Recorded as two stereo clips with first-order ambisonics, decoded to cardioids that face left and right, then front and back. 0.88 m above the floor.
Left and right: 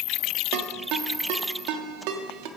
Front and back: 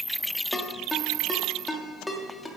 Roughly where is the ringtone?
Right.